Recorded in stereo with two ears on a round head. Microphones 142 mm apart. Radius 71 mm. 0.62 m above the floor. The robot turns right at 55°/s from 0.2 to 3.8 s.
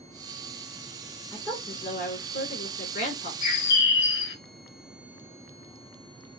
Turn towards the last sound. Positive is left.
turn(degrees=65)  # may be behind; listen again after turning